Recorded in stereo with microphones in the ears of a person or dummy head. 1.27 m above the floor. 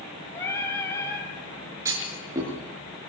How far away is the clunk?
About 6.5 m.